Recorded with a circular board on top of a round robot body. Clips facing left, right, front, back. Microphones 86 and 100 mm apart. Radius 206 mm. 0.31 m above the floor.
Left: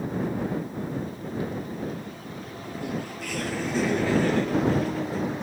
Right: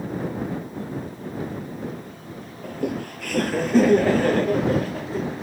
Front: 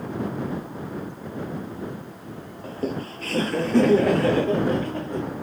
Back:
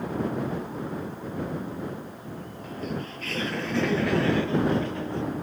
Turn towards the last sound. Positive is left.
turn(degrees=-45)